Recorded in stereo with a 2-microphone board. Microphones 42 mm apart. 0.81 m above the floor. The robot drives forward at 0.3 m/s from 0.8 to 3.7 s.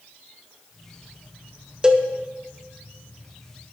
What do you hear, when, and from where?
1.8 s a cowbell: 20° right (ahead or behind), 0.6 m